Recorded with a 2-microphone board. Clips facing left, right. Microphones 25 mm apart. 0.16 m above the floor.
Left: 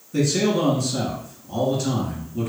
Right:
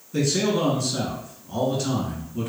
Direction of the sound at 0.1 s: Centre (ahead or behind).